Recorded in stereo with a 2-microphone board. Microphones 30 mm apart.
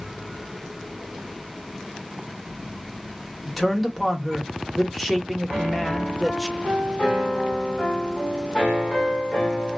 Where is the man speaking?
5° left (ahead or behind), 0.9 m.